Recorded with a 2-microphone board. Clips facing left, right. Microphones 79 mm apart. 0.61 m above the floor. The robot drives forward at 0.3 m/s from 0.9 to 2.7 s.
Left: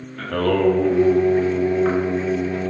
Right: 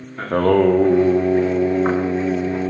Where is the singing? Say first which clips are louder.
Right 4 dB; 30° right (ahead or behind), 0.6 m; by 2.7 s 25° right (ahead or behind), 0.7 m.